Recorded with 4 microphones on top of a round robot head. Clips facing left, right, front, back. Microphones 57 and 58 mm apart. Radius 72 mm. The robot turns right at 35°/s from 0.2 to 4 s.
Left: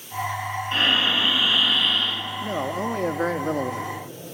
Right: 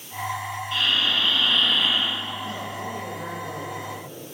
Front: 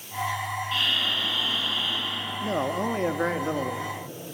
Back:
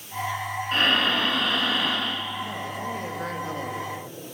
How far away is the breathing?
About 1.4 m.